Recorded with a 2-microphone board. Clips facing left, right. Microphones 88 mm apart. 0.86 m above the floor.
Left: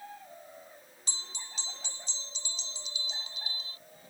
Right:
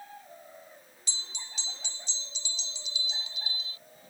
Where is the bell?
40° left (ahead or behind).